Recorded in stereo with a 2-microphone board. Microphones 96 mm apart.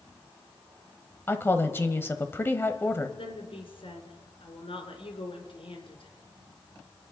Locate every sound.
1.3 s a woman speaking: 25° left (ahead or behind), 1.0 m
3.2 s a woman speaking: 70° left (ahead or behind), 3.5 m